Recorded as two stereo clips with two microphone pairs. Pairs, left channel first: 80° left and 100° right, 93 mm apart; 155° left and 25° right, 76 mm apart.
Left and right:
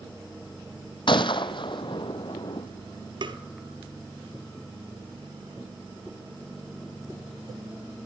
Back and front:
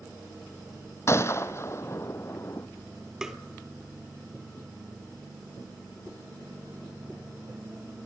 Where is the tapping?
110° right, 1.2 m.